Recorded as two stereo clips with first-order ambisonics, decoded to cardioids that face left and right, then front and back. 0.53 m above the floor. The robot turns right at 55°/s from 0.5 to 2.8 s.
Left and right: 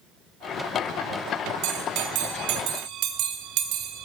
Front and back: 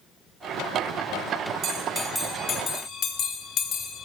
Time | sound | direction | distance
1.6 | a bell | 120° right | 0.6 m